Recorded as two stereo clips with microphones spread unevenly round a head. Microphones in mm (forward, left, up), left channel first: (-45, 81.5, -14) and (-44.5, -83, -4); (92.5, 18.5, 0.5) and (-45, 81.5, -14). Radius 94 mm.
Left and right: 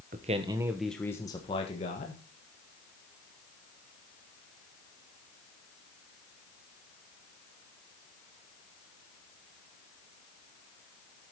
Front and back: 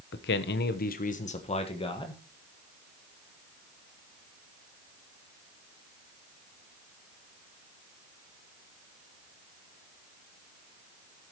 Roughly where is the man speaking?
Ahead right.